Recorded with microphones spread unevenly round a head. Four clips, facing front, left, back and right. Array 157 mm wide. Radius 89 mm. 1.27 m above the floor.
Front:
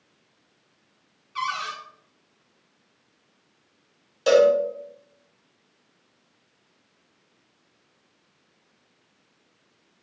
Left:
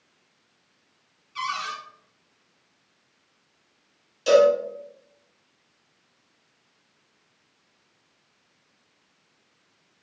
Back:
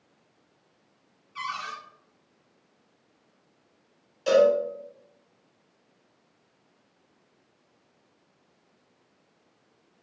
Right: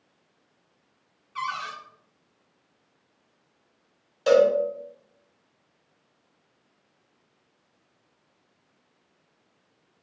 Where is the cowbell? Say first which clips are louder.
Left 2 dB, front 3 dB; 15° right, 4.5 m.